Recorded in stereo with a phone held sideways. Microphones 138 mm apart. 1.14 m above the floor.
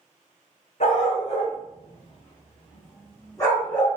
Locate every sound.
0.8 s a dog barking: 60° left (ahead or behind), 3.5 m; by 4.0 s 20° left (ahead or behind), 5.5 m